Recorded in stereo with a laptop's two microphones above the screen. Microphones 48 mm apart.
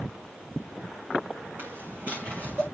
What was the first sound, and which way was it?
Footsteps, 45° right (ahead or behind).